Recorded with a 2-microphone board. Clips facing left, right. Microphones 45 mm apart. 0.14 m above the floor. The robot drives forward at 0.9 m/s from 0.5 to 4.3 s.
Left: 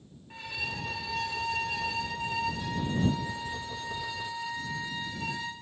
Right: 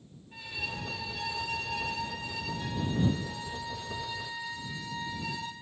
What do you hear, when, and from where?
0.3 s a violin: 85° left, 9.5 m; by 5.5 s 75° left (ahead or behind), 10 m